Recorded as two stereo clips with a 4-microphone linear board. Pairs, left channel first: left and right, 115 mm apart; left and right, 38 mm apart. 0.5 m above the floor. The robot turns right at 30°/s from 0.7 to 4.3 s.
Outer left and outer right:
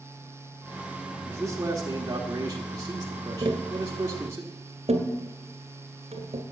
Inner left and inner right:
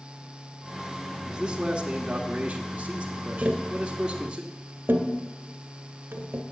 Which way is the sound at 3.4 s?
45° right (ahead or behind).